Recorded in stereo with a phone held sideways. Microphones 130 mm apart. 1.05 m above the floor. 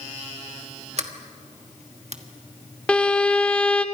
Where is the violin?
10° left (ahead or behind), 0.9 m.